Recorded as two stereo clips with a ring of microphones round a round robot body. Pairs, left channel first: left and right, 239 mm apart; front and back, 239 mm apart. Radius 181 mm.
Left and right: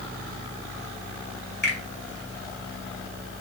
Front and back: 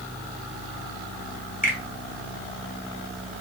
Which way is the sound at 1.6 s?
50° left.